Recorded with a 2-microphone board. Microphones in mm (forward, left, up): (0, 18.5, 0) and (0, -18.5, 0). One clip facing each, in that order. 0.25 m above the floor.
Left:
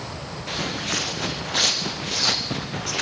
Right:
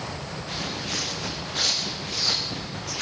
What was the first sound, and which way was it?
Footsteps, 75° left (ahead or behind).